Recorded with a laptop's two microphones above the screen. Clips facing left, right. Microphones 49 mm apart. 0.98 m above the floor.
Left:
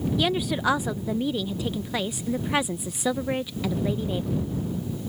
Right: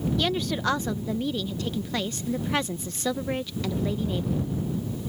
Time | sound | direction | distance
0.2 | a woman speaking | 10° left (ahead or behind) | ?